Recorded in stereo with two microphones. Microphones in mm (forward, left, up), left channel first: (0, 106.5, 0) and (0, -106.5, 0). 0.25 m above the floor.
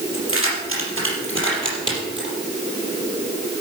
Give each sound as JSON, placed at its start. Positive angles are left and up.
{"t": 0.1, "sound": "keys jangling", "side_deg": -80, "distance_m": 4.5}